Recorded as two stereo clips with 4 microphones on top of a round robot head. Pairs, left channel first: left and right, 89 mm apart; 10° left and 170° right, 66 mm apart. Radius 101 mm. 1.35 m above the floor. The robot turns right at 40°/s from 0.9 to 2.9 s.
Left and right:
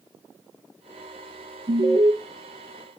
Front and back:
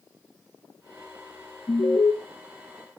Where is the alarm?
50° right, 1.5 m; by 2.1 s 35° right, 1.5 m.